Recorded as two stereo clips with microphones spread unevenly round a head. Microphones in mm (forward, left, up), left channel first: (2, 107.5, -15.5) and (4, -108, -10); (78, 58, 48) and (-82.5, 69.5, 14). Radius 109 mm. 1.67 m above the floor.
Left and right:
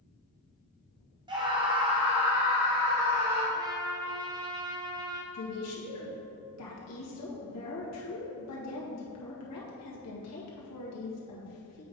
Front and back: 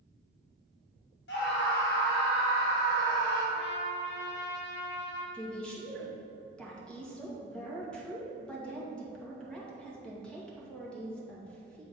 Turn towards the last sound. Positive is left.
turn(degrees=80)